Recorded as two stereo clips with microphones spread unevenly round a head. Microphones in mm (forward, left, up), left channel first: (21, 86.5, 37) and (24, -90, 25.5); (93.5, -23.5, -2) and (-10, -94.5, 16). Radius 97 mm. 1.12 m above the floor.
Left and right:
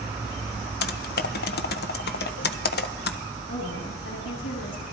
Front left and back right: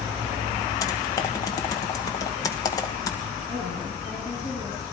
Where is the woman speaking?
85° left, 9.5 m.